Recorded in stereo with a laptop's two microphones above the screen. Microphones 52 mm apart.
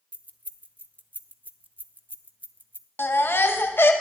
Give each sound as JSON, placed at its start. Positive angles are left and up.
{"t": 0.1, "sound": "keys jangling", "side_deg": -35, "distance_m": 0.6}
{"t": 3.0, "sound": "a baby crying", "side_deg": 45, "distance_m": 0.6}